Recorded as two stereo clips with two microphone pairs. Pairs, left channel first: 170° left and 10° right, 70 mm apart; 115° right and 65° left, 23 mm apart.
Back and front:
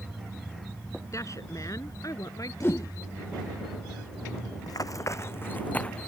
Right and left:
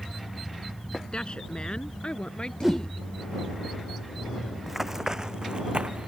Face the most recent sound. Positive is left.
turn(degrees=90)